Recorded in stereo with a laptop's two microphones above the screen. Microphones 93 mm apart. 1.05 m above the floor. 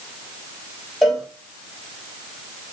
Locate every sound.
1.0 s a cowbell: centre (ahead or behind), 0.9 m